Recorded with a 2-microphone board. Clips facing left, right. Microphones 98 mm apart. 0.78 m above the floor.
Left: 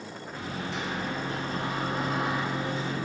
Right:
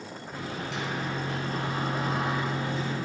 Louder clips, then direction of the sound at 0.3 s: Even; 75° right (ahead or behind).